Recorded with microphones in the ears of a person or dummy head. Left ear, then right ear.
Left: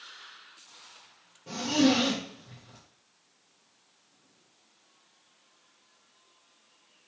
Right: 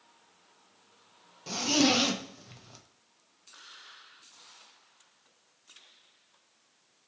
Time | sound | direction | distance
1.5 | a zipper | 65° right (ahead or behind) | 0.6 m